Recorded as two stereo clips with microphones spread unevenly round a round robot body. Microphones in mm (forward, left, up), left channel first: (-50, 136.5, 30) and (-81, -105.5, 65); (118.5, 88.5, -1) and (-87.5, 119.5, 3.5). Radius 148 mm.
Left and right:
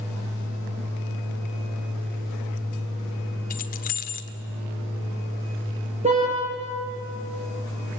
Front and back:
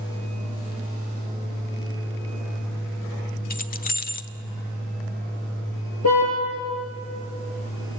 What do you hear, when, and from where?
3.5 s keys jangling: 35° left, 1.2 m
6.0 s a car horn: 30° right, 7 m